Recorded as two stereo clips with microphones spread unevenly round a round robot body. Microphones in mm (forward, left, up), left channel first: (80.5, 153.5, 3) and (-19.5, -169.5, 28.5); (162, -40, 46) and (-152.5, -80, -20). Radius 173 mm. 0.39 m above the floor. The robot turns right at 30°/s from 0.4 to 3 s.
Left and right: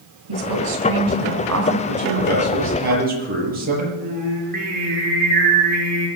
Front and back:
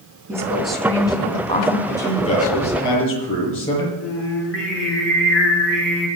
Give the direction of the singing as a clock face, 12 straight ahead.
1 o'clock.